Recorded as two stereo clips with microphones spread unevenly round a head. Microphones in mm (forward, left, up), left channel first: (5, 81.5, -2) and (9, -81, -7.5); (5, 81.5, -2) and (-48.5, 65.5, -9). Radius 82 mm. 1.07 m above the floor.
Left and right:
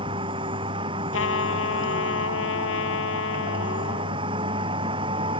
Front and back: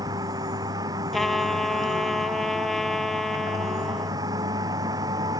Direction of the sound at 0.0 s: 150° right.